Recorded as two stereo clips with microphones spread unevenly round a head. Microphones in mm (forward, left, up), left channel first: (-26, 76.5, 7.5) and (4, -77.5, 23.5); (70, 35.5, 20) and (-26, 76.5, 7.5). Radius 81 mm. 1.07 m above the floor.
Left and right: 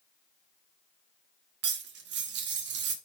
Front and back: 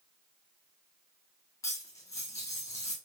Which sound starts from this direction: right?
Cutlery clinking, at 1.6 s.